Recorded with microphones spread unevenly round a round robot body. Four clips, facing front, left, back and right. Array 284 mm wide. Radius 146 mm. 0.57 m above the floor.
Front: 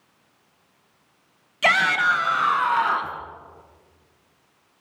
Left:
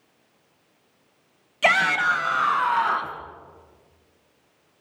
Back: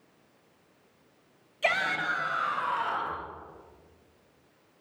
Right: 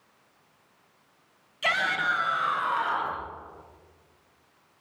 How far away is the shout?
About 5 m.